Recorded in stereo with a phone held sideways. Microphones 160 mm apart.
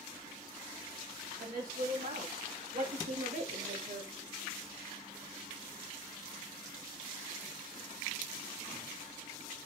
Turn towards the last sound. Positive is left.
turn(degrees=-55)  # may be behind; listen again after turning